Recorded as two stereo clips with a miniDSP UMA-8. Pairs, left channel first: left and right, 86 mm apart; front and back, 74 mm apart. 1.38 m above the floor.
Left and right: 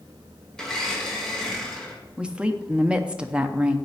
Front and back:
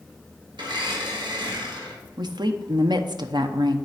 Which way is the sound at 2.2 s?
165° right.